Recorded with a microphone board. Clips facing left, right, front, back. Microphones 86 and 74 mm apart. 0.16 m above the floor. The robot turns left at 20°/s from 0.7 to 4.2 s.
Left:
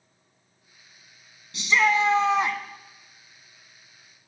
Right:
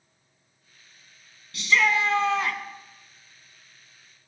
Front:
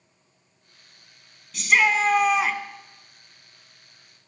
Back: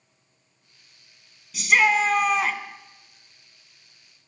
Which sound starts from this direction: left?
A shout, at 1.5 s.